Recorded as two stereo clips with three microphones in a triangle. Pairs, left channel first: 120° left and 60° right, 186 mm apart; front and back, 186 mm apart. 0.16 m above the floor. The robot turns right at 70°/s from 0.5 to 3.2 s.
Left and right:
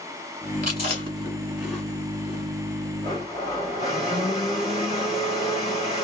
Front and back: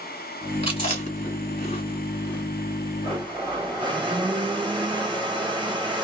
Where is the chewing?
45° right, 2.0 m; by 2.4 s 85° left, 2.0 m.